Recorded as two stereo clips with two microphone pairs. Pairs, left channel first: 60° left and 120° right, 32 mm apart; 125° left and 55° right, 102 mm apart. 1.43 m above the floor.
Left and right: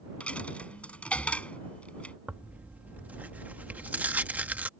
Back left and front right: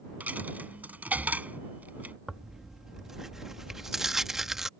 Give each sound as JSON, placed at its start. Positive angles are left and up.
{"t": 0.2, "sound": "a dropped coin", "azimuth_deg": 15}
{"t": 2.3, "sound": "tearing paper", "azimuth_deg": -140}